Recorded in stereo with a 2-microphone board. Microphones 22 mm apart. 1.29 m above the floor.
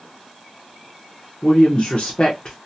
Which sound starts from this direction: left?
A woman speaking, at 1.4 s.